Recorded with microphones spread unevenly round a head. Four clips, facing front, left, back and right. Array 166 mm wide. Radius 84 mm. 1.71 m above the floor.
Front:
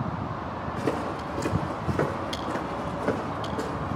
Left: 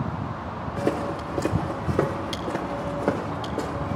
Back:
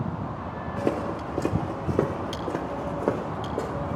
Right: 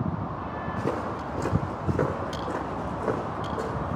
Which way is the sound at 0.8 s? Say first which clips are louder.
Left 5 dB, back 2 dB; 140° left.